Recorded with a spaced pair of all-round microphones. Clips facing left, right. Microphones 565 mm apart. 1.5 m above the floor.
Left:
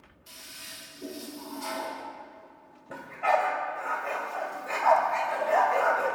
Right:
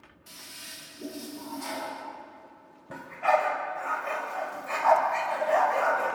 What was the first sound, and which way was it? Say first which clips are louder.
A toilet flushing: right 1 dB; 70° right (ahead or behind).